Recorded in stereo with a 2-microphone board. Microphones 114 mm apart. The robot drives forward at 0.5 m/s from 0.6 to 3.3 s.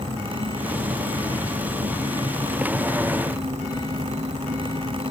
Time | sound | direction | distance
0.0 | an insect | 80° right | 4.5 m